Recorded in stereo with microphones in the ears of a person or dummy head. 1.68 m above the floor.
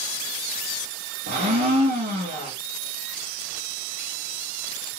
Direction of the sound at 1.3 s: 40° right (ahead or behind).